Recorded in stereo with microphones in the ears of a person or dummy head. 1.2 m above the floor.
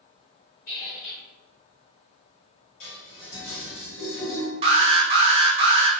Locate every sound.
0.7 s a squeak: 50° left (ahead or behind), 1.5 m
2.8 s dishes clattering: 40° left (ahead or behind), 1.7 m
4.6 s an alarm: 25° right (ahead or behind), 0.6 m